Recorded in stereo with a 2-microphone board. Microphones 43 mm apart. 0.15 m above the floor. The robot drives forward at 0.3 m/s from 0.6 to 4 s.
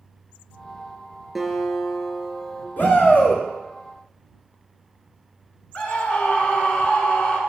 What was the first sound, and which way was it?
A guitar, centre (ahead or behind).